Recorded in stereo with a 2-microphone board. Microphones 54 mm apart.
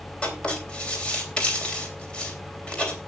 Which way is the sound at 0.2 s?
20° left (ahead or behind).